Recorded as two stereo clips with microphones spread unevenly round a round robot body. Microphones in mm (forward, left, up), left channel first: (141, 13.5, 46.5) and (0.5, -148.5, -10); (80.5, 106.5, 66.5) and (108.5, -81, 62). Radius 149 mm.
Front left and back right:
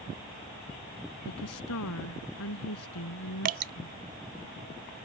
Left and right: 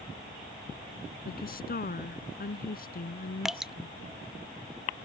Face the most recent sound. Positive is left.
turn(degrees=-170)